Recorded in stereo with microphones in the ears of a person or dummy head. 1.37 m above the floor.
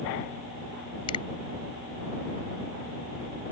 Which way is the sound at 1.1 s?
35° left (ahead or behind).